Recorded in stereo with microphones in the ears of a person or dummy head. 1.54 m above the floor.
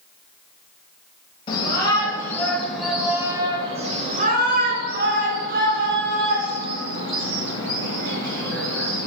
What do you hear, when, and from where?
1.5 s a shout: 30° left (ahead or behind), 1.3 m; by 9.1 s 85° right, 3 m